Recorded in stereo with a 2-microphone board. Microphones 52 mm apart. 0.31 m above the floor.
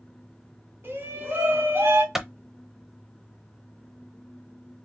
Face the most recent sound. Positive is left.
turn(degrees=-10)  # may be behind; listen again after turning